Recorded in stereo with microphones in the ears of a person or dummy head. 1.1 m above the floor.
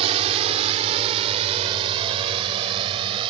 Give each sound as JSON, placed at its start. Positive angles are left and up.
{"t": 0.0, "sound": "a drone", "side_deg": -35}